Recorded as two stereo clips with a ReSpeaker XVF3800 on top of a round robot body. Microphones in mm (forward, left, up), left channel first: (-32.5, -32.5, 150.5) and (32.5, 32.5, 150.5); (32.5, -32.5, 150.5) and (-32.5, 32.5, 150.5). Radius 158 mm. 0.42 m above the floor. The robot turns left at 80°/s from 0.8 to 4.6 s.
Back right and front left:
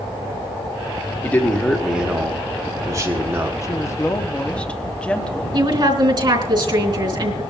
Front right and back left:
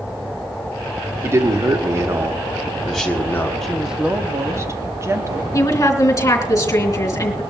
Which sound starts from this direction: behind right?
A woman speaking, at 3.6 s.